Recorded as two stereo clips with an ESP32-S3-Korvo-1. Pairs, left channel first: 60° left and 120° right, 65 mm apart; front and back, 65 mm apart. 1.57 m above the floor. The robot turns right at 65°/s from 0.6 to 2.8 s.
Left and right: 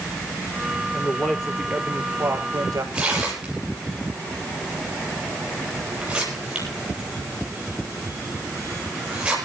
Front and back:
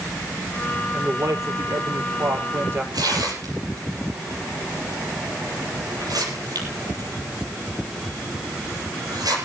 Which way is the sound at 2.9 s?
165° left.